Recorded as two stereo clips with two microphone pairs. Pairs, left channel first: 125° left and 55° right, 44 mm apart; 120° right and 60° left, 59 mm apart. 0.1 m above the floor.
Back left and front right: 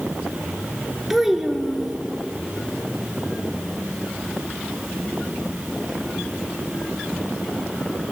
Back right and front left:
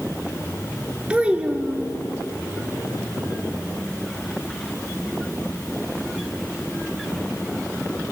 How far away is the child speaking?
About 0.9 m.